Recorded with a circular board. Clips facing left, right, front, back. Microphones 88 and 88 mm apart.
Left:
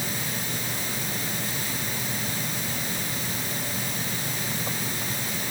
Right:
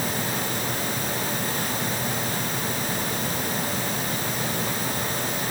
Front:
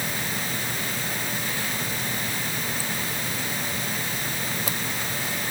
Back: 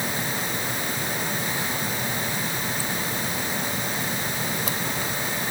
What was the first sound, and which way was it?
Only background noise.